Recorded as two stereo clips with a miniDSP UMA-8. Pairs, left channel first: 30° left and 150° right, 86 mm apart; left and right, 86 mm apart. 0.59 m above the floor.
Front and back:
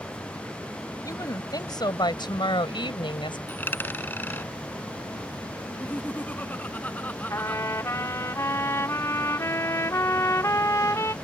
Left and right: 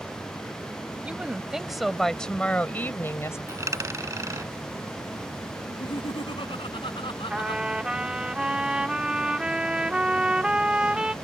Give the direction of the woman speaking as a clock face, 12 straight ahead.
12 o'clock.